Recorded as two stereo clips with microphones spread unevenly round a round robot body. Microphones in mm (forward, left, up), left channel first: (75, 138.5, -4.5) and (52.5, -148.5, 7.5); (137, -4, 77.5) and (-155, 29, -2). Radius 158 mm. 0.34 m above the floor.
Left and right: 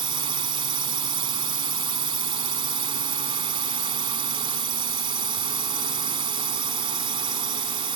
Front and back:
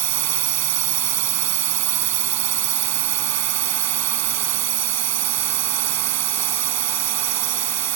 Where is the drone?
170° right.